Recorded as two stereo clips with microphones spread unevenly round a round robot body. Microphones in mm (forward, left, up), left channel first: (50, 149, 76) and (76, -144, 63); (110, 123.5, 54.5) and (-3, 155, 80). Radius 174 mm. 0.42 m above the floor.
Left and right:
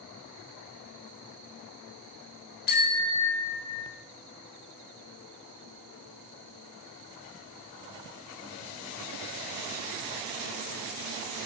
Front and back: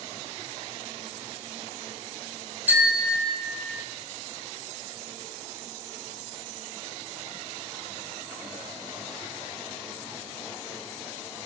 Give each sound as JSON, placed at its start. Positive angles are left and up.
{"t": 2.7, "sound": "a bicycle bell", "azimuth_deg": 90, "distance_m": 3.0}